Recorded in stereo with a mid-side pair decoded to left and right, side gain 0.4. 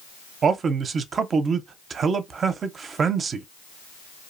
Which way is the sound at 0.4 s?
55° right.